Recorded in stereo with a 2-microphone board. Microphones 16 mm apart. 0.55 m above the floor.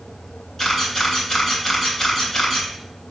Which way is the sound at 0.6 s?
25° left (ahead or behind).